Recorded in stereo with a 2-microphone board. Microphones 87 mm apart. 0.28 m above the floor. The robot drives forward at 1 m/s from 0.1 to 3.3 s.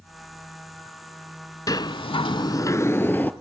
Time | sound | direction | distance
1.7 | a sliding door | 45° left (ahead or behind) | 0.7 m